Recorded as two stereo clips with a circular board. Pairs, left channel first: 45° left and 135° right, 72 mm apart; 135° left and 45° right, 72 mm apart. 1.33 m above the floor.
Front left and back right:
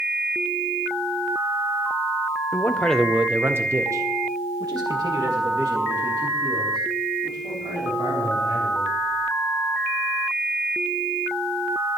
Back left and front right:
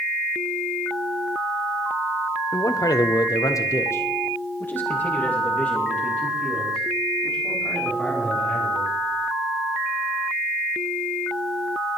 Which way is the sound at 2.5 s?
100° left.